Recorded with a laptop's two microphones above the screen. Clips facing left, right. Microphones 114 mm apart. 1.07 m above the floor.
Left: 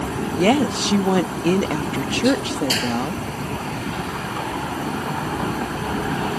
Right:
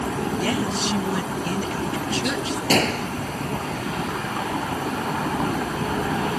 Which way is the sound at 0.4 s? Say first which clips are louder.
Left 11 dB; 75° left (ahead or behind).